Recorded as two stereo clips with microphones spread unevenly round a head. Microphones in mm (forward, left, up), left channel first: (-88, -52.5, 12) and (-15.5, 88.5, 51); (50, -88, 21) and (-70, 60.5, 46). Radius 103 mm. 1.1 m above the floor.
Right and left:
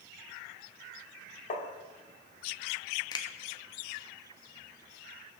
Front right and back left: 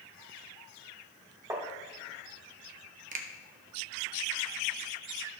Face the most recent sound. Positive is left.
turn(degrees=180)